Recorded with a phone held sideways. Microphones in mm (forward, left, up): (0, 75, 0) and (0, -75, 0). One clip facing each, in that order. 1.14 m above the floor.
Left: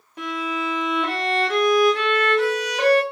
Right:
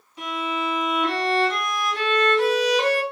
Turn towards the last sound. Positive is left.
turn(degrees=60)  # may be behind; listen again after turning